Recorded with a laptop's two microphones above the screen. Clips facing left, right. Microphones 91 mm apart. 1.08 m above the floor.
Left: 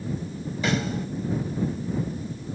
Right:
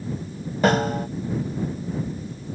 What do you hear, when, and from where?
0.6 s a snare drum: 55° right (ahead or behind)